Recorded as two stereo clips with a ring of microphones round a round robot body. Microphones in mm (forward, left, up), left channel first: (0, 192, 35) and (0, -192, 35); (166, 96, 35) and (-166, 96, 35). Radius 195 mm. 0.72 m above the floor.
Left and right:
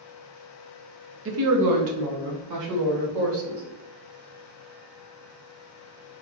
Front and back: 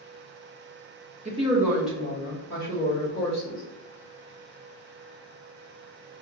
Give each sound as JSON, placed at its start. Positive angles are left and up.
{"t": 1.2, "sound": "a woman speaking", "azimuth_deg": -120, "distance_m": 0.8}